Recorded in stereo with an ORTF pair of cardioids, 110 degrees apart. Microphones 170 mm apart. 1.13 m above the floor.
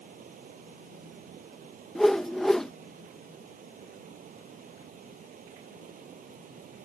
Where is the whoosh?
Straight ahead.